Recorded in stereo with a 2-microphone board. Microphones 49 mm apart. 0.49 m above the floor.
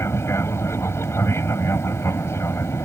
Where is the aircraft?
60° left (ahead or behind).